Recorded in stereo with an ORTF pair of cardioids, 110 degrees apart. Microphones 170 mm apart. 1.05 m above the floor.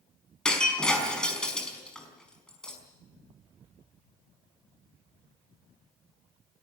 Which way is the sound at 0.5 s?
5° left.